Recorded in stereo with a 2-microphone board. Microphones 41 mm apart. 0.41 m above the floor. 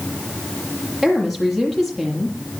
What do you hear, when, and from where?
1.0 s a woman speaking: centre (ahead or behind), 9.5 m